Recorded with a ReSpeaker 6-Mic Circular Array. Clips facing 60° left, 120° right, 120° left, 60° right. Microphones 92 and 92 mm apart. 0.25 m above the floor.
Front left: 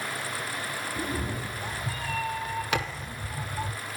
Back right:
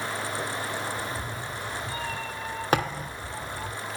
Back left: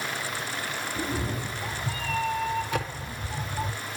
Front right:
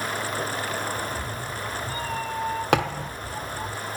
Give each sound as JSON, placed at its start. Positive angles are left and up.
{"t": 1.0, "sound": "a cat meowing", "azimuth_deg": 80, "distance_m": 4.0}
{"t": 2.7, "sound": "a thud", "azimuth_deg": -70, "distance_m": 4.5}